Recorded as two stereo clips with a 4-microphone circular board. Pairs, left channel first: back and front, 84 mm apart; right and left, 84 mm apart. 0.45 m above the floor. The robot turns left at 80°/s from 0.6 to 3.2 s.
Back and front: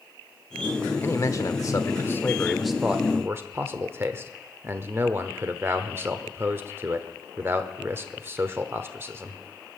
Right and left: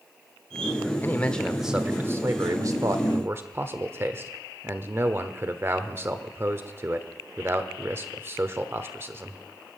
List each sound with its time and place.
1.0 s a man speaking: 140° right, 1.0 m; by 9.4 s 45° left, 1.0 m